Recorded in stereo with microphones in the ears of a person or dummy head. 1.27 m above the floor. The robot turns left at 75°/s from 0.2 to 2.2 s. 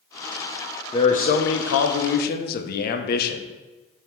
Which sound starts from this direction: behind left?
A man speaking, at 0.9 s.